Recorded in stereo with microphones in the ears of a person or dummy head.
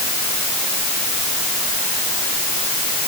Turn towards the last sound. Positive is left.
No sound to turn to.